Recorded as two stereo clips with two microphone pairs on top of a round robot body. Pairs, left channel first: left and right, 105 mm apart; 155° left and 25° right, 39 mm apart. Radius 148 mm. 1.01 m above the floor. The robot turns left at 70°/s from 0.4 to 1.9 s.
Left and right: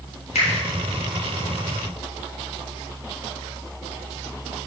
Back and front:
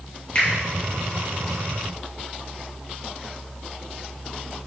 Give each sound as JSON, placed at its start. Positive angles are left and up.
{"t": 0.3, "sound": "a finger snap", "azimuth_deg": 90, "distance_m": 3.0}